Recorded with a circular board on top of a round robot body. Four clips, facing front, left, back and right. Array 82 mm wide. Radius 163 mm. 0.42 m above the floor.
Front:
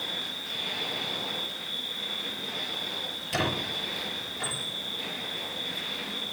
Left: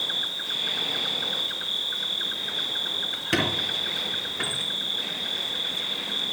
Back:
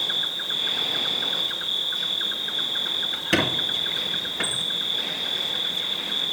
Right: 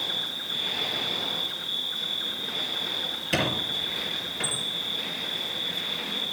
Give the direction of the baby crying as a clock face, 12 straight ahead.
No baby crying in this recording.